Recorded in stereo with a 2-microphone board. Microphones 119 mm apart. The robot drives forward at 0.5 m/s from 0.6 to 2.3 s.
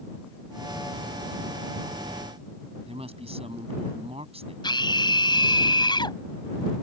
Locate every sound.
2.9 s a woman speaking: 65° right (ahead or behind)
4.6 s a scream: 40° left (ahead or behind)